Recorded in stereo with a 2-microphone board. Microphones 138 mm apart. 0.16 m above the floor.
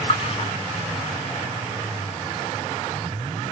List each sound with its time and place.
0.1 s a splash: 45° left (ahead or behind), 1.7 m